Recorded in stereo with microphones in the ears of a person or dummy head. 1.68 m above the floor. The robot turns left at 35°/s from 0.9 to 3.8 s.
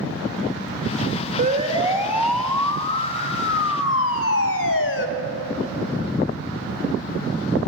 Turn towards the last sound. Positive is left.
turn(degrees=70)  # may be behind; listen again after turning